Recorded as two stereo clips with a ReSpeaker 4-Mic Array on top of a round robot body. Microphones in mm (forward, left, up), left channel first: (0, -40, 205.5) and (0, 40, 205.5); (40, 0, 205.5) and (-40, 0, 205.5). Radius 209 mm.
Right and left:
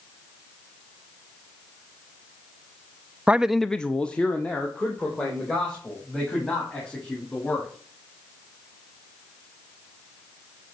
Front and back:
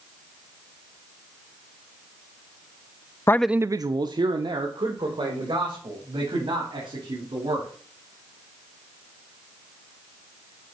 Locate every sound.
3.3 s a man speaking: 25° left, 0.5 m; by 7.7 s 165° right, 5 m